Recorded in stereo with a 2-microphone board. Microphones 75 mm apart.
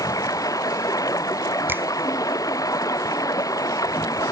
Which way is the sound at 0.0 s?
50° left (ahead or behind).